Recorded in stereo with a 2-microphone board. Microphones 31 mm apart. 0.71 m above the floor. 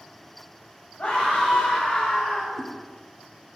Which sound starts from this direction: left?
A scream, at 1.0 s.